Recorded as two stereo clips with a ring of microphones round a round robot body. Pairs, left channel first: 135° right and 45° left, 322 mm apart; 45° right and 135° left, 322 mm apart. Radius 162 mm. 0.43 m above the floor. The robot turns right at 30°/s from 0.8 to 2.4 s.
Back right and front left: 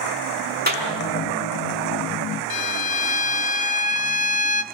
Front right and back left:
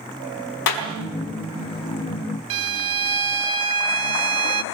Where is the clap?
15° right, 4.5 m.